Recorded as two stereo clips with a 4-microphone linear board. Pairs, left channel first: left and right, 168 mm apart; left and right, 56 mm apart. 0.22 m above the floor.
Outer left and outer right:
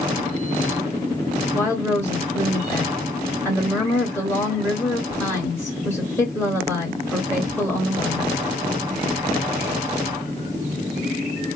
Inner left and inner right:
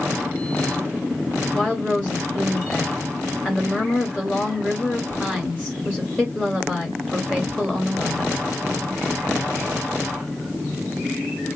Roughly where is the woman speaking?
Centre.